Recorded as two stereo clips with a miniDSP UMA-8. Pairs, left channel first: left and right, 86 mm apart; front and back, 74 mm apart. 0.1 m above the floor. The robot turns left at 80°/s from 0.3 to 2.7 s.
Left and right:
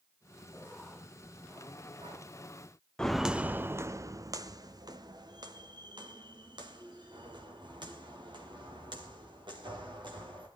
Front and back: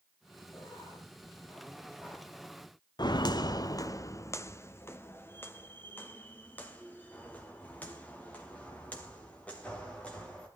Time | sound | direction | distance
0.5 | writing | 60° left | 8.5 m
3.0 | footsteps | 10° left | 0.5 m